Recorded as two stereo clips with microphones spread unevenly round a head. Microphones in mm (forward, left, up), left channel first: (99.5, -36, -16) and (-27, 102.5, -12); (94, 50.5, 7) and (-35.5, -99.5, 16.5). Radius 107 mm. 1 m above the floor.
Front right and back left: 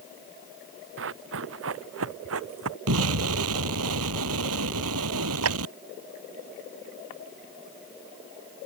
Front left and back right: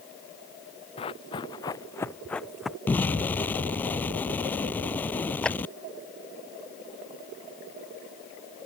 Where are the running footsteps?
120° left; by 2.8 s 145° left.